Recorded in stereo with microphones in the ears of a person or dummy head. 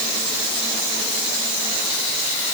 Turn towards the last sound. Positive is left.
No sound to turn to.